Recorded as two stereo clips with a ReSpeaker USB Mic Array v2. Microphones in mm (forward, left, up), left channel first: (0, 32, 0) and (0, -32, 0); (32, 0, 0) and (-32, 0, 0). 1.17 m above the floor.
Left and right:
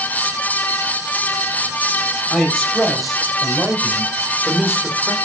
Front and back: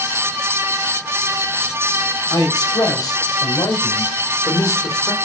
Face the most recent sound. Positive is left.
turn(degrees=-20)